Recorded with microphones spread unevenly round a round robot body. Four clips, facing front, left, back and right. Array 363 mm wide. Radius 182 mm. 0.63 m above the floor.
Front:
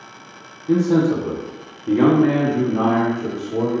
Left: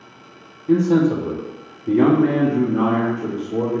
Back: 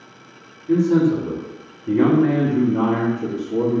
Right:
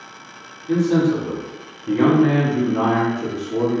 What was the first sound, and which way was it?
A man speaking, 55° left.